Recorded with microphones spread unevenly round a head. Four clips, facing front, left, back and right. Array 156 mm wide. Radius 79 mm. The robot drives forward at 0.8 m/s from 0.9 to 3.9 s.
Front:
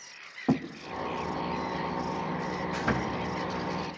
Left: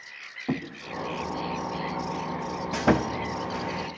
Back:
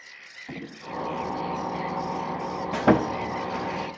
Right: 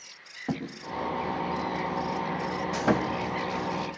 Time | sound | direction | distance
0.5 | a thud | 5° right | 4 m
2.7 | sawing | 165° left | 1.1 m